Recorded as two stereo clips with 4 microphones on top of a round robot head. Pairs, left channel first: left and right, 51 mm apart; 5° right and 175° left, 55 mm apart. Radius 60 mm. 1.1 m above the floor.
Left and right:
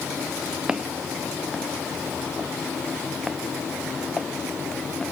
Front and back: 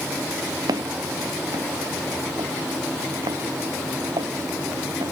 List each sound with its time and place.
0.7 s footsteps: 165° right; by 5.1 s 170° left